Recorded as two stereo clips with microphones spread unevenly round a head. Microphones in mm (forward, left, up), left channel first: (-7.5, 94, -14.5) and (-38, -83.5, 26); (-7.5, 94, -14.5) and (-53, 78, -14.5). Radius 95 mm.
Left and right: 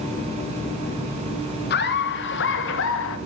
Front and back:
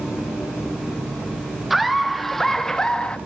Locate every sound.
1.7 s laughter: 110° left, 1.9 m; by 3.2 s 90° left, 1.5 m